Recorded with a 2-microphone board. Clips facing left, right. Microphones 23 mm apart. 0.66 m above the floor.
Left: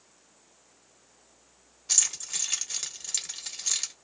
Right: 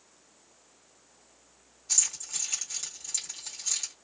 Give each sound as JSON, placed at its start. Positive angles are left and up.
{"t": 1.9, "sound": "keys jangling", "side_deg": 40, "distance_m": 1.3}